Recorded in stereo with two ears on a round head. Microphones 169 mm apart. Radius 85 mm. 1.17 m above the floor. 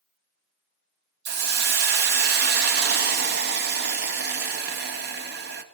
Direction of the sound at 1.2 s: 55° right (ahead or behind).